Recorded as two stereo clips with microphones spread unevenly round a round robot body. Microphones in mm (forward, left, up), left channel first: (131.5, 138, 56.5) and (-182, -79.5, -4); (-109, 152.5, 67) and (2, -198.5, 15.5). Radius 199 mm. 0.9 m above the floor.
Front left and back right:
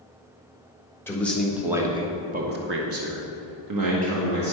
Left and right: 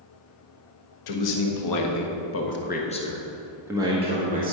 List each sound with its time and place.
1.1 s a man speaking: 125° left, 1.5 m; by 4.5 s 130° right, 1.7 m